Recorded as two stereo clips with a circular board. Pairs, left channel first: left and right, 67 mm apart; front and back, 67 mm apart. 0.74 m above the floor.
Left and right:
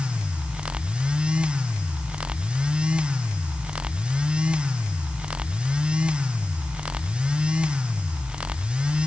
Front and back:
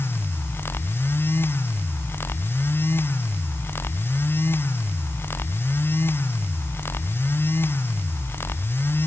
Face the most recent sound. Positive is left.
No sound to turn to.